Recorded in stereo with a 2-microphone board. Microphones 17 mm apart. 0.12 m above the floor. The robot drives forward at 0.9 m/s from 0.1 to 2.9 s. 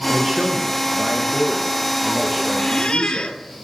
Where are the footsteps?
I don't hear footsteps.